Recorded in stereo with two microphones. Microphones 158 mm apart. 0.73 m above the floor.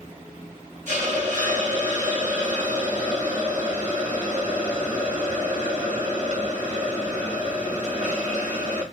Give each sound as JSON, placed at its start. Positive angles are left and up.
{"t": 0.9, "sound": "a hiss", "side_deg": -55, "distance_m": 1.1}